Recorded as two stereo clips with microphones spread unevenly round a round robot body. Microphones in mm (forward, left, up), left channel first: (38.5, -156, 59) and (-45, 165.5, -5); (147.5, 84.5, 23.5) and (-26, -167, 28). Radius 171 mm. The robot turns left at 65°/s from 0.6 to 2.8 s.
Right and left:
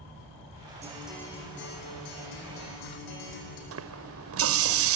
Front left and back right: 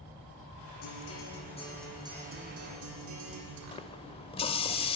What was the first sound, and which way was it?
A guitar, 35° left.